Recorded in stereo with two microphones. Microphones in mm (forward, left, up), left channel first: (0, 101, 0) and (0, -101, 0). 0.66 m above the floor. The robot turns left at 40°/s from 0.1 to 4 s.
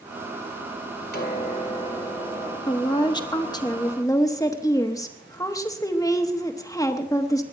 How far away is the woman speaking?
About 1.0 m.